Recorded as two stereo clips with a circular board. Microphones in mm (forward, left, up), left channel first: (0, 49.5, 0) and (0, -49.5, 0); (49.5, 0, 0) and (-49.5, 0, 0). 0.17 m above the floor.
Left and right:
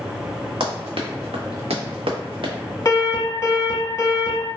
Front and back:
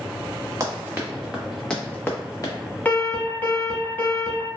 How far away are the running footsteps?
About 1.1 m.